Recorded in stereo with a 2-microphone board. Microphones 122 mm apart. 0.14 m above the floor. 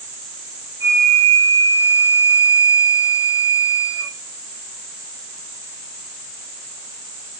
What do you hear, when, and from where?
0.8 s a flute: 40° left (ahead or behind), 1.4 m